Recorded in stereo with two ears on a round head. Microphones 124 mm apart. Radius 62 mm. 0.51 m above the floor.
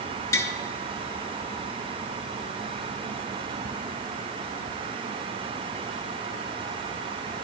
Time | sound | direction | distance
0.3 | tapping | 20° left (ahead or behind) | 1.0 m